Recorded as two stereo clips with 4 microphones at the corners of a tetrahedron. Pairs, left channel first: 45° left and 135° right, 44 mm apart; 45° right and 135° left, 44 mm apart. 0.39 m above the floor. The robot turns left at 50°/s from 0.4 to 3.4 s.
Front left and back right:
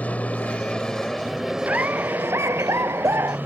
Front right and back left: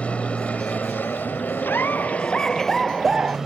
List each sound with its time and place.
0.0 s an aircraft: straight ahead; by 3.5 s 150° right
1.6 s laughter: 75° right; by 3.4 s 160° right